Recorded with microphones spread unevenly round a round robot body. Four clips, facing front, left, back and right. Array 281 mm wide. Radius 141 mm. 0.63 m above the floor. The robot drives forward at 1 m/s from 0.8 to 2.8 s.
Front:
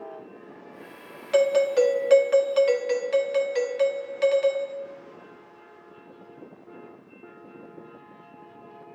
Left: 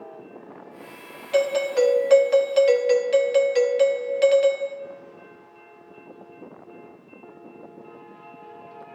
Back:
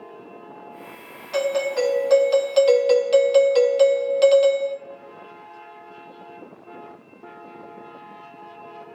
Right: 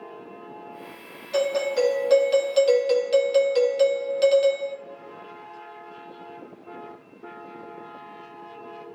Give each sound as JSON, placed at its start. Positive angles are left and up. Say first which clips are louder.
{"t": 1.3, "sound": "a doorbell", "louder": "left 2 dB, front 3 dB", "azimuth_deg": 0, "distance_m": 1.4}